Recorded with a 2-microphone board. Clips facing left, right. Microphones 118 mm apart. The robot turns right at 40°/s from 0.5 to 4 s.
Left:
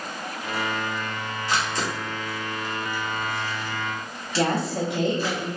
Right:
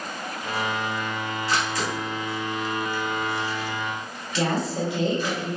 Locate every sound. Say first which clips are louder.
1.5 s a camera shutter: left 1 dB; 20° left (ahead or behind), 1.3 m; by 5.3 s 35° left (ahead or behind), 1.3 m
4.3 s a woman speaking: left 1 dB; 60° left (ahead or behind), 1.7 m